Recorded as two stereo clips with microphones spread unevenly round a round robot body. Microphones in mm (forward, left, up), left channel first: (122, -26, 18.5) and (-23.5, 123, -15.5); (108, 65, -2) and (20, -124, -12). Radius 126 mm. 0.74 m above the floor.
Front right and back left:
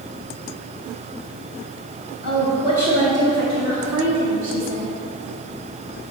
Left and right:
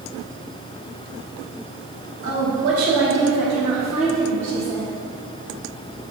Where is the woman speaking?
160° right, 1.8 m; by 4.9 s 135° left, 1.2 m.